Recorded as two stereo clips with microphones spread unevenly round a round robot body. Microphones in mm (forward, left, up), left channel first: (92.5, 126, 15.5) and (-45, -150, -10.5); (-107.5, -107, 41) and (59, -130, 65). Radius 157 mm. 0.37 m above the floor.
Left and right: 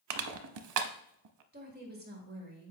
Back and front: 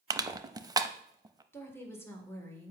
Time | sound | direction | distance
0.1 | crushing | 80° right | 0.6 m
1.5 | a woman speaking | 135° right | 1.6 m